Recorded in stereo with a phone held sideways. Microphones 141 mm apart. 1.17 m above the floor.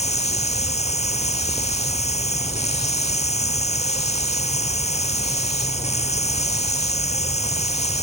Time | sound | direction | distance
0.0 | running water | 50° left (ahead or behind) | ?